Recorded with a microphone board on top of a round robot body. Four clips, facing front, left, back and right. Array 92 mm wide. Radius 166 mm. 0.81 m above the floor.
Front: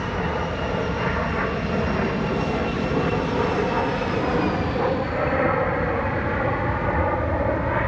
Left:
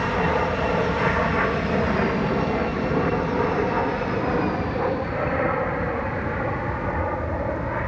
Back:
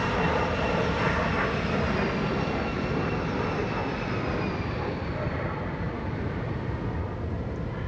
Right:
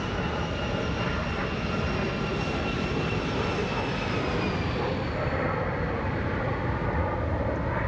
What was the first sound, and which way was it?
An aircraft, 95° left.